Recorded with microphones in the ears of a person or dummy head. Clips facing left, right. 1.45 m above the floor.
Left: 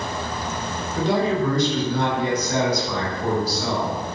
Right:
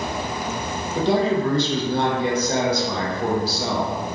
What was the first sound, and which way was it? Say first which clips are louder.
A man speaking: right 1 dB; 30° right (ahead or behind).